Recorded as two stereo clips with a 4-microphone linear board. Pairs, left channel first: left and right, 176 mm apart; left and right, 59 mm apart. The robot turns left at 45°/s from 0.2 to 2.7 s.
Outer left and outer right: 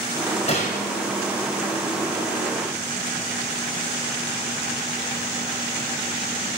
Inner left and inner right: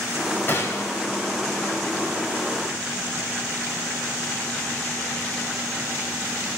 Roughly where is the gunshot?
Left.